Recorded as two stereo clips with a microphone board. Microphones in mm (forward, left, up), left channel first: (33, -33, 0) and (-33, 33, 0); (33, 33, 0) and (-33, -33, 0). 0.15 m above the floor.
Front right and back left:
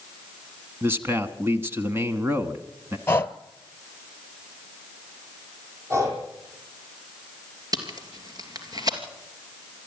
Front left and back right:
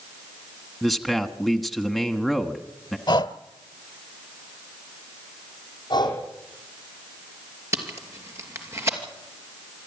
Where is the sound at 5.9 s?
80° left, 4 m.